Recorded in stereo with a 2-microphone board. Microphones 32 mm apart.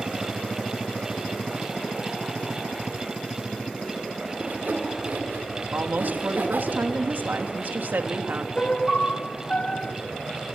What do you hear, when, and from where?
4.4 s sawing: 80° right, 5.5 m
5.7 s a woman speaking: 85° right, 2.5 m
8.6 s a piano: 40° left (ahead or behind), 1.4 m